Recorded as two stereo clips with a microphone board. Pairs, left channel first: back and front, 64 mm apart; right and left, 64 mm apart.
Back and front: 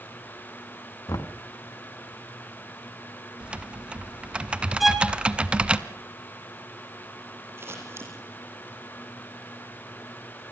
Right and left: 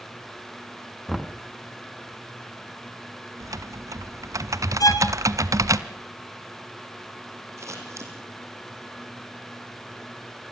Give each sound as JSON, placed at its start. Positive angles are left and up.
{"t": 1.1, "sound": "knocking", "azimuth_deg": -175, "distance_m": 1.2}
{"t": 3.4, "sound": "typing on a keyboard", "azimuth_deg": 70, "distance_m": 0.9}
{"t": 4.8, "sound": "a violin", "azimuth_deg": -85, "distance_m": 1.9}
{"t": 7.6, "sound": "scissors", "azimuth_deg": 50, "distance_m": 5.0}